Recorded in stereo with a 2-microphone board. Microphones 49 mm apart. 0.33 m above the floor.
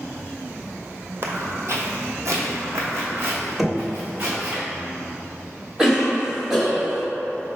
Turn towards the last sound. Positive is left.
turn(degrees=-10)  # may be behind; listen again after turning